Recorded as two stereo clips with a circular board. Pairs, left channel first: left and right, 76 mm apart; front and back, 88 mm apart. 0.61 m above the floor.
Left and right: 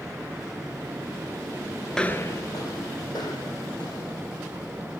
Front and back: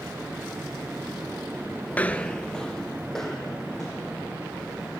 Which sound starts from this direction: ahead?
Footsteps, at 1.9 s.